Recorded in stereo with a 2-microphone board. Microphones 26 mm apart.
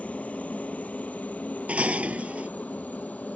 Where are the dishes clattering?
55° right (ahead or behind).